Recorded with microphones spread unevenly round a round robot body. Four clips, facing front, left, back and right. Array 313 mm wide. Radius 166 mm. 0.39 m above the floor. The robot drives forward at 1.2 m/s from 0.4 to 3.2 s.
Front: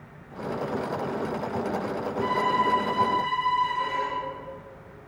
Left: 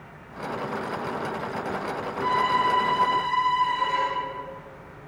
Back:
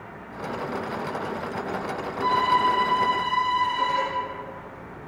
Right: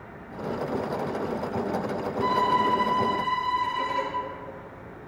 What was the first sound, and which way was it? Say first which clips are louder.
A violin: even, back 4 dB; 120° right.